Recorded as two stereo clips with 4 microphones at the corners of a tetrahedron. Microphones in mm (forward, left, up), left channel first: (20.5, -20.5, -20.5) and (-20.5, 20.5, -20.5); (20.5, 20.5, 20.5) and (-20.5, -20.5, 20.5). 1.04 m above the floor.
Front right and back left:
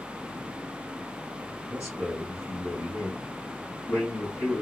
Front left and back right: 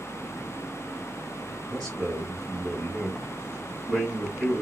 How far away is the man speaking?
About 1.3 m.